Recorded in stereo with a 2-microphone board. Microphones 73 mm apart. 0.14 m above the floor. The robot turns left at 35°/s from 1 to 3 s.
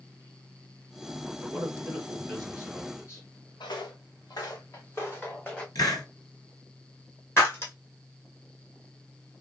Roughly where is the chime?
No chime in this recording.